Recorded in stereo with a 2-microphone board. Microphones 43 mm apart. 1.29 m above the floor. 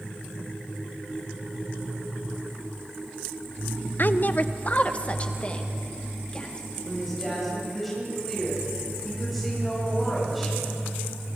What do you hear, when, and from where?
4.0 s a woman speaking: 50° left (ahead or behind), 0.8 m; by 6.7 s 20° left (ahead or behind), 3.5 m
6.8 s a woman speaking: centre (ahead or behind), 8.5 m